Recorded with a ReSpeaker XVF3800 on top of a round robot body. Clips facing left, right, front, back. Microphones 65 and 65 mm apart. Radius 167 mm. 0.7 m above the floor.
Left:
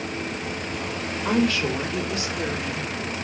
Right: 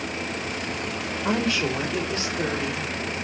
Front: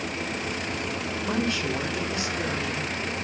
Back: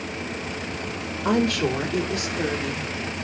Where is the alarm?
No alarm in this recording.